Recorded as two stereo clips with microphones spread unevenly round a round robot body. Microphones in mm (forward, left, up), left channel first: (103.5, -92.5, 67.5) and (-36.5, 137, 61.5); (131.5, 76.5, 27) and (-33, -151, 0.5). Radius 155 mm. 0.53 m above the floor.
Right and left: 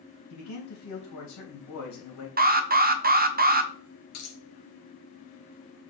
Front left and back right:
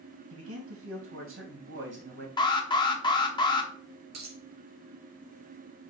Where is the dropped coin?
95° right, 2.5 m.